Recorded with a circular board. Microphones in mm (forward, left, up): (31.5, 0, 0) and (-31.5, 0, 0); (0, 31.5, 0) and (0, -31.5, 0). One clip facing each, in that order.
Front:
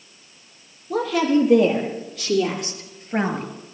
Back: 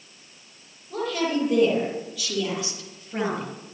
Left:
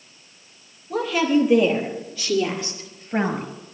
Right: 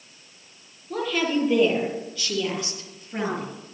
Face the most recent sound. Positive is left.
turn(degrees=45)